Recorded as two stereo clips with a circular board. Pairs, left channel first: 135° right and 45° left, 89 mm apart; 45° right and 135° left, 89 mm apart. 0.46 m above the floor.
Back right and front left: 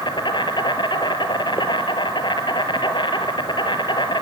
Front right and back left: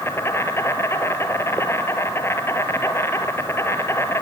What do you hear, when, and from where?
0.0 s an insect: 105° right, 1.7 m